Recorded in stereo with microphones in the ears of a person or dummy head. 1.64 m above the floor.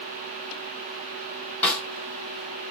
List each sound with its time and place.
1.6 s a snare drum: 10° left (ahead or behind), 3.5 m